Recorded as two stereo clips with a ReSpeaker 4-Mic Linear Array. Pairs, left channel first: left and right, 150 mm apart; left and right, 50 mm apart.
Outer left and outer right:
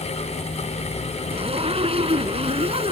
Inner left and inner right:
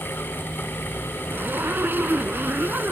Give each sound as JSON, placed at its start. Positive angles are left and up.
{"t": 1.3, "sound": "a zipper", "side_deg": -40}